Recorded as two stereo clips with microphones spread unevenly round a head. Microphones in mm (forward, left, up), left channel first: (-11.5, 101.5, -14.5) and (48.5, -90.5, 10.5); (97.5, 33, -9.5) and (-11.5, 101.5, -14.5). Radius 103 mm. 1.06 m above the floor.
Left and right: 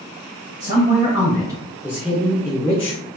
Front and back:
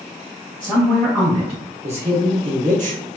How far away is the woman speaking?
About 1.4 m.